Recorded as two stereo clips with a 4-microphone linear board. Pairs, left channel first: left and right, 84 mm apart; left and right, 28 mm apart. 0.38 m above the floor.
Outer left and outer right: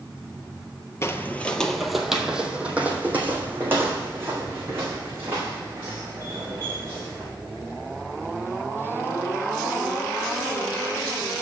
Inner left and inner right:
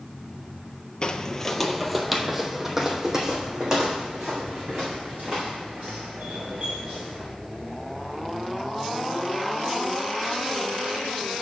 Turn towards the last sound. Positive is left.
turn(degrees=-35)  # may be behind; listen again after turning